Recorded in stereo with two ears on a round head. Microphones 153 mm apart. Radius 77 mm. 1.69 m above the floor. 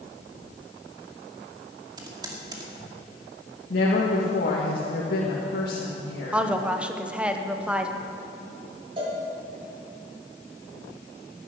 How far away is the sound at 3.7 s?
About 2 m.